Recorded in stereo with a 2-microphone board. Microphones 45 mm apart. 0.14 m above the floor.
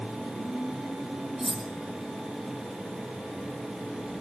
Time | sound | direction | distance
1.4 | cutlery clinking | 10° right (ahead or behind) | 3.5 m